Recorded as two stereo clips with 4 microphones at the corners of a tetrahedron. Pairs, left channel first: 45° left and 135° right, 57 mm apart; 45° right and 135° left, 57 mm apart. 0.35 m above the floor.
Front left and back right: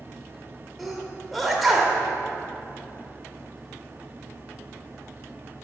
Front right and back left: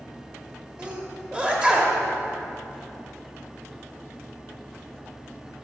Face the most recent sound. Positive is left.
turn(degrees=135)